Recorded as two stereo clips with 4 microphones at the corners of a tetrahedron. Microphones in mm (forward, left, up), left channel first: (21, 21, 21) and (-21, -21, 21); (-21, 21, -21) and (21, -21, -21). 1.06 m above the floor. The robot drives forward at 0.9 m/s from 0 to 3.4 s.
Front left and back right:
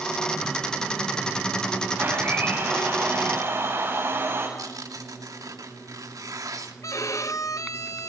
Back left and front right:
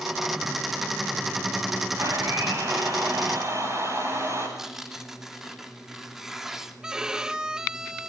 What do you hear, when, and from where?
2.0 s a blender: 80° right, 9.5 m; by 4.5 s 85° right, 9 m
4.6 s tearing paper: 130° right, 2.5 m
6.8 s a violin: 30° left, 1.3 m